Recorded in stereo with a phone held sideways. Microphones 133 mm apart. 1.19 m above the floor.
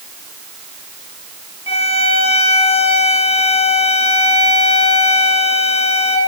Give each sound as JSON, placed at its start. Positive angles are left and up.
{"t": 1.7, "sound": "a violin", "side_deg": 45, "distance_m": 0.6}